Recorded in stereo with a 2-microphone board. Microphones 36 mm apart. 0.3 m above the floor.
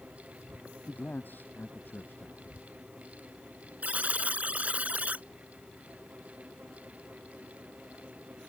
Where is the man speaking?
65° left (ahead or behind).